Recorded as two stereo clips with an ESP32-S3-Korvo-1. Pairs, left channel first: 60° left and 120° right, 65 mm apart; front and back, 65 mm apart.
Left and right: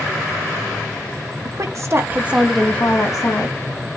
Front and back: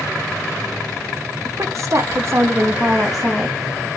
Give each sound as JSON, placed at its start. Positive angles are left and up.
{"t": 1.4, "sound": "a woman speaking", "azimuth_deg": -140, "distance_m": 1.4}